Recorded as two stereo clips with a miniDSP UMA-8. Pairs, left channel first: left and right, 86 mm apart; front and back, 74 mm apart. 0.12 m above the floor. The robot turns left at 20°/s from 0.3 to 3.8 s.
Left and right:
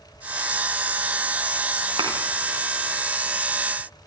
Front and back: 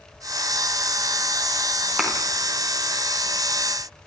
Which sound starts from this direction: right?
A thud, at 2.0 s.